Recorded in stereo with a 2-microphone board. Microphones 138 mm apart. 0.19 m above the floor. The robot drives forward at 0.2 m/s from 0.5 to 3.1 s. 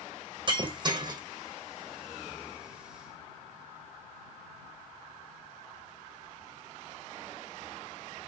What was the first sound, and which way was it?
Breaking glass, 35° right (ahead or behind).